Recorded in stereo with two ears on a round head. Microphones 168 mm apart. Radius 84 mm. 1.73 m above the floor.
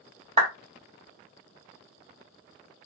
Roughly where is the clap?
Right.